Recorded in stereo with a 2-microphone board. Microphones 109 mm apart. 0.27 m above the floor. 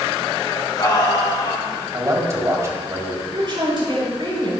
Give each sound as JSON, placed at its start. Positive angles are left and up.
{"t": 0.5, "sound": "singing", "side_deg": 35, "distance_m": 2.5}
{"t": 1.9, "sound": "a man speaking", "side_deg": -30, "distance_m": 1.6}
{"t": 3.3, "sound": "a woman speaking", "side_deg": -50, "distance_m": 4.0}